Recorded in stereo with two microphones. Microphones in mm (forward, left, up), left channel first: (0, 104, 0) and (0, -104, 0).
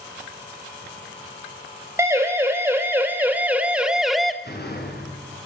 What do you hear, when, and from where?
2.0 s a siren: 15° right (ahead or behind), 4 m; by 4.3 s centre (ahead or behind), 1.6 m
4.4 s a door slam: 55° left (ahead or behind), 6 m